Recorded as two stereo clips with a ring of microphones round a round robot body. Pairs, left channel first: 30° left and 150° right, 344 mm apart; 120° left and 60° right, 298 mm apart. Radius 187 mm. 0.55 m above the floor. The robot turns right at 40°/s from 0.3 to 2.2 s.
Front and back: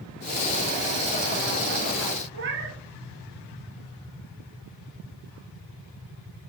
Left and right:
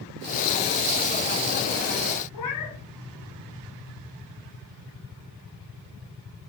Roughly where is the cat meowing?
Behind left.